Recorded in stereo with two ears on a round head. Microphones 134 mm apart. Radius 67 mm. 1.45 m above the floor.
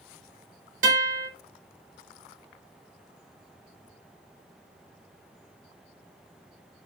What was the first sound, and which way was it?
A guitar, 55° right (ahead or behind).